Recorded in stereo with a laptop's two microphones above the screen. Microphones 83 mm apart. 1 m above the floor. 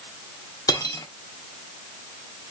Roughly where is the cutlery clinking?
Left.